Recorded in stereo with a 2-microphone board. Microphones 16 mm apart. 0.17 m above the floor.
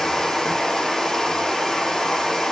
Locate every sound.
0.0 s running water: 25° left (ahead or behind), 6 m